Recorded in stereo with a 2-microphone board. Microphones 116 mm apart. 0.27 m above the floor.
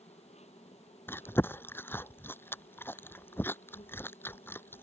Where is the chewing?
20° left (ahead or behind).